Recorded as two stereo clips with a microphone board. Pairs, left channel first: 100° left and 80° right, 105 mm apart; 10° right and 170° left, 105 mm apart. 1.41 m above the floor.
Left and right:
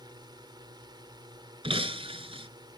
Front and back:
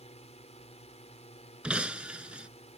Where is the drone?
30° right.